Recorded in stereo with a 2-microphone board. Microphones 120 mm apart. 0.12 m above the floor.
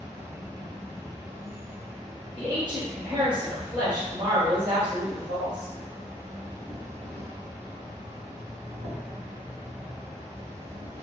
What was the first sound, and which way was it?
An insect, 25° right (ahead or behind).